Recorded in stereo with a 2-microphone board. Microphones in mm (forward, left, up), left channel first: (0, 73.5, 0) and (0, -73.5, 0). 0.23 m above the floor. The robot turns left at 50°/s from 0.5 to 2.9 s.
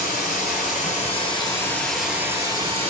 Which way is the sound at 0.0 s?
75° left.